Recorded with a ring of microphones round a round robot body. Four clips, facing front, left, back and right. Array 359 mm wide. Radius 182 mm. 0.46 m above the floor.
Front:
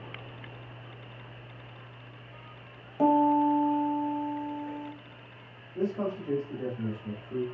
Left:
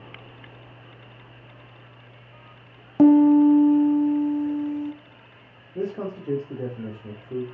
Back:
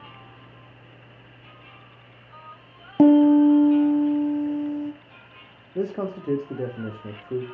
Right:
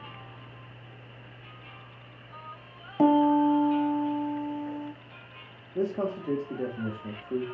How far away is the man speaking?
About 1.8 m.